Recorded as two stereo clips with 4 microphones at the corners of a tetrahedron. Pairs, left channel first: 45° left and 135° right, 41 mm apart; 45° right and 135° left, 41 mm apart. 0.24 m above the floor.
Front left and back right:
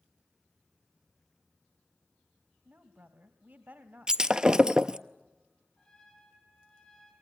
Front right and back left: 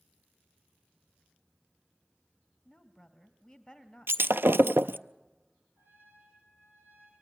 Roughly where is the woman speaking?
Behind right.